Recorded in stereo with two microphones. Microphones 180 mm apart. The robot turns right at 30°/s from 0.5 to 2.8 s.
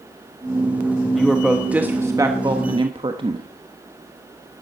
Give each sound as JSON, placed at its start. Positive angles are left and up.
{"t": 1.1, "sound": "a woman speaking", "azimuth_deg": 175, "distance_m": 1.1}